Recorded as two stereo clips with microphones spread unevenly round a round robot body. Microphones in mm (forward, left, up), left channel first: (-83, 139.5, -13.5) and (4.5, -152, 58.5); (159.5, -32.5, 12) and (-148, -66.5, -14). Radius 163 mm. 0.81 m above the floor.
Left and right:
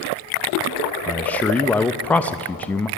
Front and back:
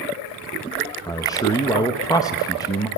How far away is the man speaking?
About 0.6 m.